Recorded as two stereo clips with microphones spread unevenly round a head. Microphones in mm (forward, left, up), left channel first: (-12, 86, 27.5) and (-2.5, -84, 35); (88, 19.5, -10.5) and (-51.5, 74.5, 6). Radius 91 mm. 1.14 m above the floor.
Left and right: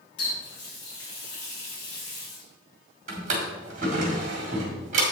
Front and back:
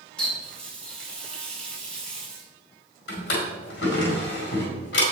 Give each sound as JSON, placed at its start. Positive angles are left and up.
{"t": 0.2, "sound": "a running tap", "azimuth_deg": 65, "distance_m": 3.5}
{"t": 3.1, "sound": "a drawer", "azimuth_deg": -40, "distance_m": 2.0}